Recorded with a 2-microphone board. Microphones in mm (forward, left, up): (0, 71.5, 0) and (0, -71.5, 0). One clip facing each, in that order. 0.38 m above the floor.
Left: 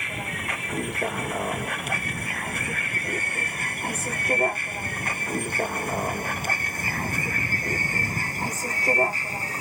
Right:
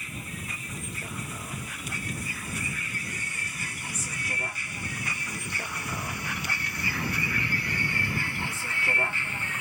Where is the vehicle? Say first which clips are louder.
Left 6 dB; 70° left (ahead or behind); by 9.6 s 35° left (ahead or behind).